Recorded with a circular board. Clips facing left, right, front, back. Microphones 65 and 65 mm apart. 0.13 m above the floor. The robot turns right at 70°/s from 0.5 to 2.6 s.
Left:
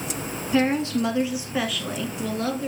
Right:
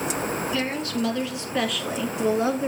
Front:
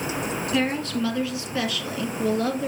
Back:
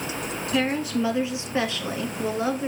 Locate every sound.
0.5 s a woman speaking: 90° left, 1.2 m; by 2.7 s 125° right, 1.2 m